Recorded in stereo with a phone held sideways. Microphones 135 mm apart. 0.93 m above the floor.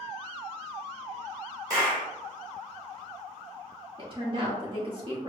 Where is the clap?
30° right (ahead or behind), 1.9 m.